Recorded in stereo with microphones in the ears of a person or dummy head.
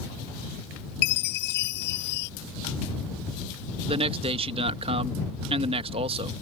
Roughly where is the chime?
Left.